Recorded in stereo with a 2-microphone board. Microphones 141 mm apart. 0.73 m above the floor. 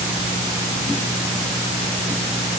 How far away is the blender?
I don't hear a blender.